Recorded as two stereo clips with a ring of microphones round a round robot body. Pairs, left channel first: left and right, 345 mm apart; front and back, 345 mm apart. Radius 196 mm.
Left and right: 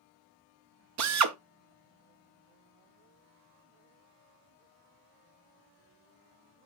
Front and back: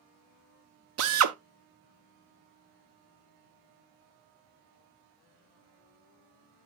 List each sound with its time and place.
1.0 s a drill: 130° right, 0.6 m